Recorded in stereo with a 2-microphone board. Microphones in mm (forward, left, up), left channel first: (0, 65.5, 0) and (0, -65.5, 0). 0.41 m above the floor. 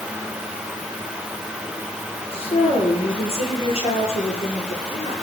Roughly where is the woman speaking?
Left.